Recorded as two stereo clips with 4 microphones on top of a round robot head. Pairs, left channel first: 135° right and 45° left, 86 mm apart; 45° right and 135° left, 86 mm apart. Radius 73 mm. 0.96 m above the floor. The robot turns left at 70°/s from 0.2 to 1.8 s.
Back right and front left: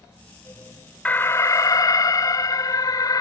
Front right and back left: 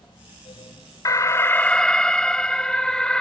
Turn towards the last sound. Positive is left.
turn(degrees=-125)